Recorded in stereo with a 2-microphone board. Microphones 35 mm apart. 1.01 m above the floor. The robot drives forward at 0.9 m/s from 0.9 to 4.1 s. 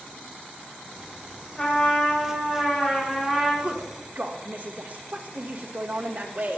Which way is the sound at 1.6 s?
20° left (ahead or behind).